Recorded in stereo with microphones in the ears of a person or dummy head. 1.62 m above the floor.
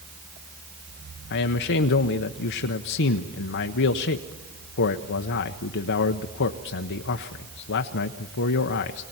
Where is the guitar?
I don't hear a guitar.